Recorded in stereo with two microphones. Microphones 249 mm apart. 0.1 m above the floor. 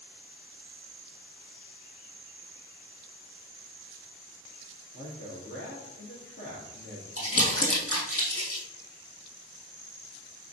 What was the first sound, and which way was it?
A man speaking, 50° left (ahead or behind).